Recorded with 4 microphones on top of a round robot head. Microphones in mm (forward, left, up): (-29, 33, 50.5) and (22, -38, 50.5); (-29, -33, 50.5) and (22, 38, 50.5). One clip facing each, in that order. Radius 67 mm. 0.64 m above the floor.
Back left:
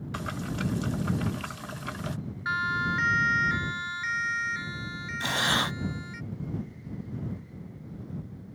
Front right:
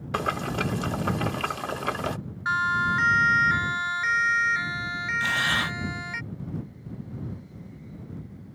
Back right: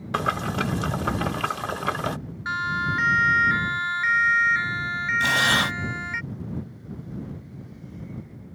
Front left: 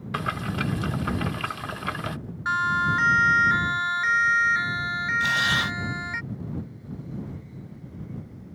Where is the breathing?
170° right.